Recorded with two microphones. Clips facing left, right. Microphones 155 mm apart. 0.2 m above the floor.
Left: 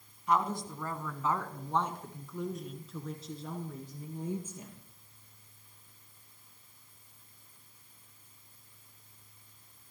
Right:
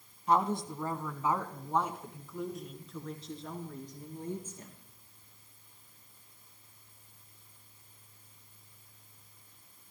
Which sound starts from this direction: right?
A woman speaking, at 0.3 s.